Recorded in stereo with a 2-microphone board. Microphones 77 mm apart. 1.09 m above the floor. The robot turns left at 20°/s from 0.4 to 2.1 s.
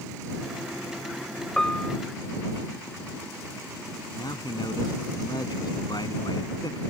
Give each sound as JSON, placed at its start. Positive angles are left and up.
{"t": 1.6, "sound": "a piano", "side_deg": 5}
{"t": 4.2, "sound": "a man speaking", "side_deg": 65}